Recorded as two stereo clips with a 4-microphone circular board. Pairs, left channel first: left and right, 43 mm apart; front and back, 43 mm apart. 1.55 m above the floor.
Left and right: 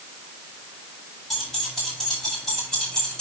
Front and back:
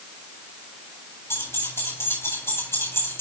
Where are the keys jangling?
5° left, 8.5 m; by 3.2 s 15° left, 6 m.